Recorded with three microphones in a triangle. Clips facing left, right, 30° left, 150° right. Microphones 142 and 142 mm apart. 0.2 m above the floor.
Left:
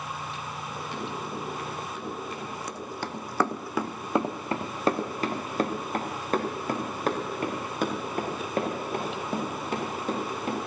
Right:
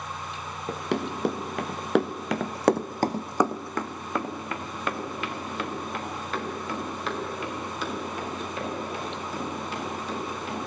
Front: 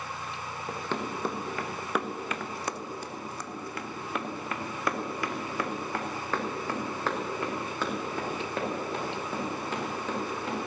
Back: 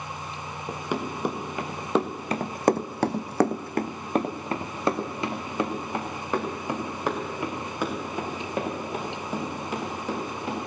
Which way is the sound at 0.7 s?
70° right.